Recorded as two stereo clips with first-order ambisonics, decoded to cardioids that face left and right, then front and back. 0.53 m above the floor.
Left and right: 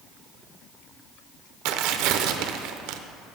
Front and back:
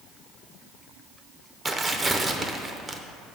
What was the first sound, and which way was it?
Tearing paper, 105° right.